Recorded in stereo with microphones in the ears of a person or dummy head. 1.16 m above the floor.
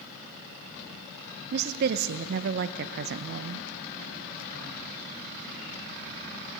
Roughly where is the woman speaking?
Right.